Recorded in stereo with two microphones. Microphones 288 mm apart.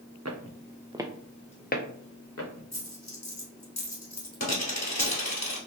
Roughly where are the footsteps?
Right.